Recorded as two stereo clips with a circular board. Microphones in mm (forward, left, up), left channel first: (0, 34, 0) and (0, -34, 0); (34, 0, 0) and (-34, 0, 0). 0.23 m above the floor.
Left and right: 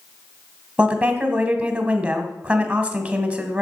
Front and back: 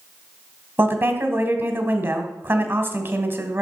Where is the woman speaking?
150° right, 1.4 m.